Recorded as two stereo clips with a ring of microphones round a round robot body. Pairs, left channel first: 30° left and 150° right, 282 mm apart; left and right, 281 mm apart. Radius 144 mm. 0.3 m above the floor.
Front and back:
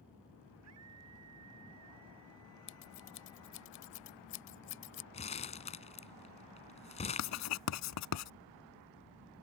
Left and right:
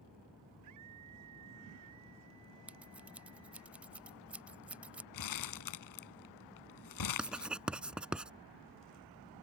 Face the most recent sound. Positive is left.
turn(degrees=-5)